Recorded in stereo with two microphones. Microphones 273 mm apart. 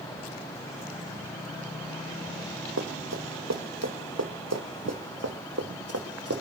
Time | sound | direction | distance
2.8 | running footsteps | 80° right | 3 m